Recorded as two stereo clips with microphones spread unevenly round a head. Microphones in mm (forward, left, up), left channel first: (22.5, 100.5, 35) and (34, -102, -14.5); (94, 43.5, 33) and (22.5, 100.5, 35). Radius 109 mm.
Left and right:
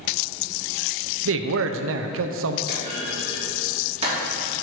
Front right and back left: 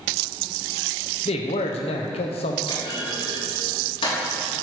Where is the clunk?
25° right, 3 m.